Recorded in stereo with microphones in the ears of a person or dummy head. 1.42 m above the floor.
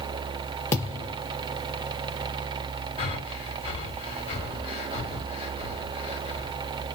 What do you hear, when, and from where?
0.7 s a thud: 15° left (ahead or behind), 1.1 m
3.0 s breathing: 35° left (ahead or behind), 1.6 m